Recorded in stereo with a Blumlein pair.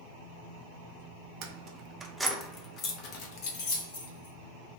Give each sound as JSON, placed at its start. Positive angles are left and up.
{"t": 1.4, "sound": "keys jangling", "azimuth_deg": -40, "distance_m": 0.7}